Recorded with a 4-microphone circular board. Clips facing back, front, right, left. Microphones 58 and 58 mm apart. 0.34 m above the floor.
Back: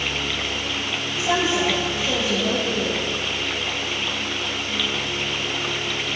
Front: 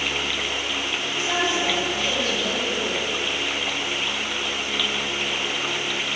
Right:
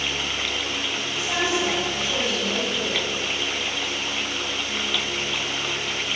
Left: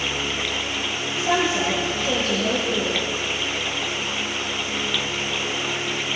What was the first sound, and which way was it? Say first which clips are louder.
A woman speaking: back 3 dB, left 3 dB; 105° left.